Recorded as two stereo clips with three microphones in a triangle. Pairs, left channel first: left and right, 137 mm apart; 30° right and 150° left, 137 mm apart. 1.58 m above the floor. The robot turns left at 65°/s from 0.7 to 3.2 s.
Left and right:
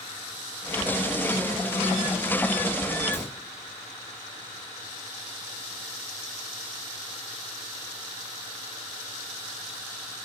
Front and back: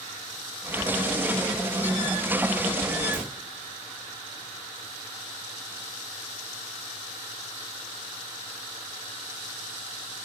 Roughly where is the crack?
Ahead left.